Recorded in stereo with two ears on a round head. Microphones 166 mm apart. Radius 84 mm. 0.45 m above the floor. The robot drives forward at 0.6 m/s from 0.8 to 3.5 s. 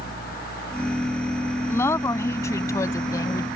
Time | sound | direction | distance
1.7 | a woman speaking | 15° left (ahead or behind) | ?